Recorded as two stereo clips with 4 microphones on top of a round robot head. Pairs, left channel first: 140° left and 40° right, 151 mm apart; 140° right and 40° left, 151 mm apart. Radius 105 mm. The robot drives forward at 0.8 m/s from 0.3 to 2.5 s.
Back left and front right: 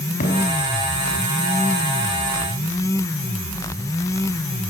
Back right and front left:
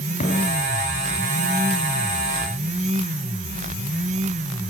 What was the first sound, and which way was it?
A thud, 175° left.